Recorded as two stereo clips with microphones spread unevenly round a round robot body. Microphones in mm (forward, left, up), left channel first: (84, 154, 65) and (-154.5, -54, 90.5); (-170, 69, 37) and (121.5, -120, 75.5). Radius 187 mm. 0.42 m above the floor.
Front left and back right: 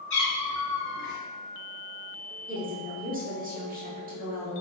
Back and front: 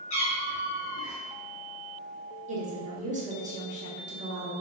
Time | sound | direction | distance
0.1 | a cat meowing | 95° left | 1.8 m
2.5 | a woman speaking | 95° right | 1.1 m